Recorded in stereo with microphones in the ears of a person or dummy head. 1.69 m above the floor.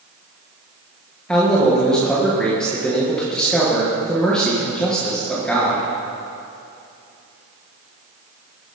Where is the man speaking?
5° left (ahead or behind), 2 m.